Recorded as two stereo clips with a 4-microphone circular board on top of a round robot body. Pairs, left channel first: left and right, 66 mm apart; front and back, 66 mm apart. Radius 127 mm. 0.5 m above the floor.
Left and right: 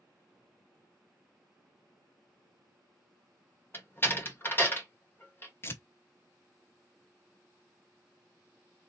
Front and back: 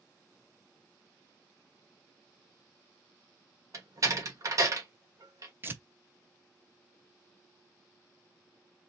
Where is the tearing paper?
135° left, 1.0 m.